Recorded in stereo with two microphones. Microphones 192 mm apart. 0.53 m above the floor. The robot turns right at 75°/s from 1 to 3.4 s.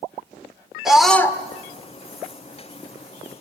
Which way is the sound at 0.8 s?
Centre (ahead or behind).